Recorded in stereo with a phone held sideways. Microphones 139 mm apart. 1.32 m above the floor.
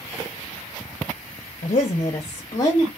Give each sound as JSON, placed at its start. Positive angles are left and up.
{"t": 1.6, "sound": "a woman speaking", "side_deg": 60, "distance_m": 0.6}